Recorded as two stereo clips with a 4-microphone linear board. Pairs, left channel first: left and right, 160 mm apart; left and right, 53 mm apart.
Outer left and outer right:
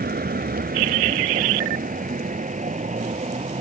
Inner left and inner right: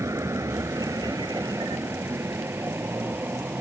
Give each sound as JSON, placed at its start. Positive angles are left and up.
{"t": 0.0, "sound": "a vehicle", "side_deg": -75}